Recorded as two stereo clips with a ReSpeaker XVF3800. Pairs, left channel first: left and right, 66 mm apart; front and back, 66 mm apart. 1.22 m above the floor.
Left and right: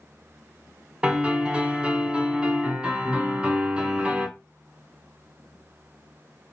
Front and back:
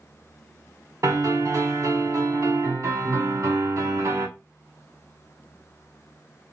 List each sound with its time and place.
1.0 s a piano: 155° right, 1.6 m